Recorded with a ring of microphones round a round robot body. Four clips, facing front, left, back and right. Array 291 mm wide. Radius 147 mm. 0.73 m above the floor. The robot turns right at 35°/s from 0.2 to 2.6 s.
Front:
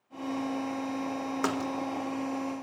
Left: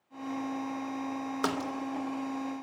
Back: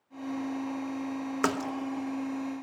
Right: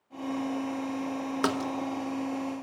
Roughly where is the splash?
Behind right.